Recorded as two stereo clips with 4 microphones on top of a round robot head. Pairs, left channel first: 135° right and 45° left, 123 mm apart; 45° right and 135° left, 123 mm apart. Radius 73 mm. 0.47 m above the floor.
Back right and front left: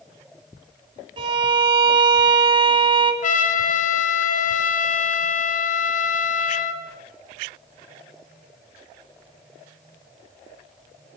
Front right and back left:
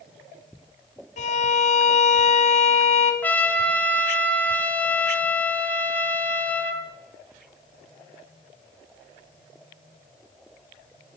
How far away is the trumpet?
About 0.9 m.